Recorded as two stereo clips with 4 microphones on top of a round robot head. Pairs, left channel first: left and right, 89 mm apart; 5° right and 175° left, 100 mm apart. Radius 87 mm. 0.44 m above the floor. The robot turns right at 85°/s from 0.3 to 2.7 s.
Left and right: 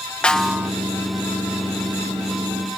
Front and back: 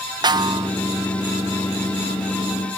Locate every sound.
0.2 s a snare drum: 165° left, 0.9 m; by 0.7 s 160° right, 0.9 m